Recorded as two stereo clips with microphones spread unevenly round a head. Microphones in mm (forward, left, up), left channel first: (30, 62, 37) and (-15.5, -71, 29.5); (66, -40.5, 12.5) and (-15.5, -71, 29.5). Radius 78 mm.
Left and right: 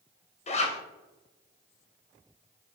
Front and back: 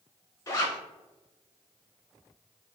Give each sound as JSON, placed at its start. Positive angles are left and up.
{"t": 0.5, "sound": "a zipper", "azimuth_deg": 55, "distance_m": 1.1}